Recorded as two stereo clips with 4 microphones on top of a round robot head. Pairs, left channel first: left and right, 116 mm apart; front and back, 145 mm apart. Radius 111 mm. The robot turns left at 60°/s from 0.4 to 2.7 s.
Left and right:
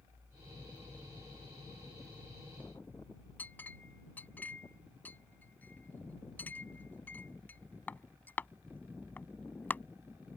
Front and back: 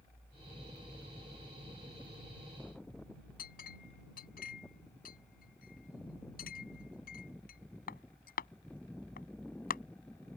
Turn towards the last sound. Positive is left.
turn(degrees=15)